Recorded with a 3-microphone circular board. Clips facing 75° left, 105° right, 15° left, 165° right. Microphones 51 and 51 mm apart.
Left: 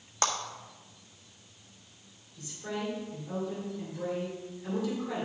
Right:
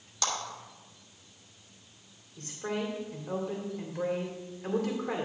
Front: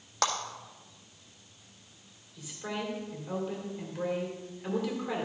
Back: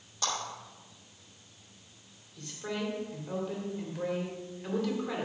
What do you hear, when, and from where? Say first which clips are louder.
0.2 s a clap: left 3 dB, front 5 dB; 30° left, 1.5 m
2.4 s a woman speaking: right 3 dB, back 1 dB; 65° right, 2.5 m